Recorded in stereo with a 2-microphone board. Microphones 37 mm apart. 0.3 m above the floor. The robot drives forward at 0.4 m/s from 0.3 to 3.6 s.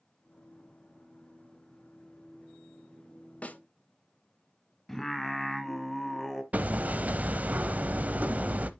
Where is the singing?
10° left (ahead or behind), 1.2 m.